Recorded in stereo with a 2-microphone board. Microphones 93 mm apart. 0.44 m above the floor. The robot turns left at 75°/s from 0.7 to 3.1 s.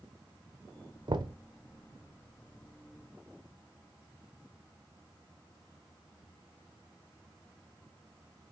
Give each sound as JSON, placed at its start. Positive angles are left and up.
{"t": 1.1, "sound": "knocking", "side_deg": -55, "distance_m": 0.7}